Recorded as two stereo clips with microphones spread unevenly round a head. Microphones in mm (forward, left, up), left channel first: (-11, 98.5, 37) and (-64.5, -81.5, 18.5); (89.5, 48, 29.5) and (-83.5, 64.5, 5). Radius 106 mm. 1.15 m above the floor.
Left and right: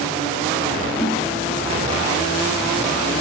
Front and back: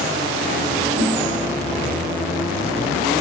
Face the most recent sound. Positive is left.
turn(degrees=130)